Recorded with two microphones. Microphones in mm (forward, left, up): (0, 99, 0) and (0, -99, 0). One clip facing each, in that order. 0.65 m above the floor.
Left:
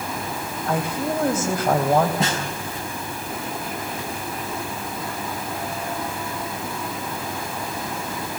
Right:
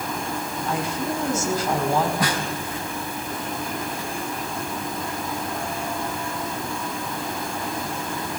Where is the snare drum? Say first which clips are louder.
Even; 25° left (ahead or behind), 4.5 m.